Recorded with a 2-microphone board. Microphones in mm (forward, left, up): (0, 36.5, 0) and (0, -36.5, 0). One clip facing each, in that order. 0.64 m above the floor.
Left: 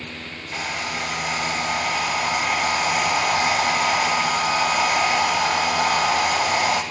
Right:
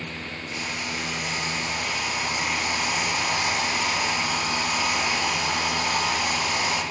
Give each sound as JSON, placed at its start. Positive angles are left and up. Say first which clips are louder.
{"t": 0.5, "sound": "a hair dryer", "louder": "left 5 dB", "side_deg": 65, "distance_m": 0.8}